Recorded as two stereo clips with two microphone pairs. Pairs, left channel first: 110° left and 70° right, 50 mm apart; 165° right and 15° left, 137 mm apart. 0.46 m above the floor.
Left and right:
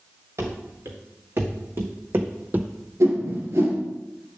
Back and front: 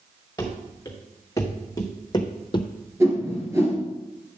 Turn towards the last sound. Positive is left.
turn(degrees=-55)